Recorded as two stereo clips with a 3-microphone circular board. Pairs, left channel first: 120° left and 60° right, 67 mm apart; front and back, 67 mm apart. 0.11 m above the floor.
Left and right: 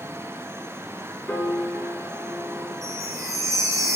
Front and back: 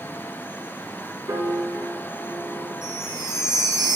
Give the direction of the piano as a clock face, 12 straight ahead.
5 o'clock.